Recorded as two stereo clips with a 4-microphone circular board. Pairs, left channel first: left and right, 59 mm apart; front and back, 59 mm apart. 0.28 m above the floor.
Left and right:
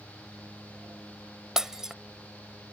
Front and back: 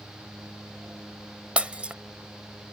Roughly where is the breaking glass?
Behind right.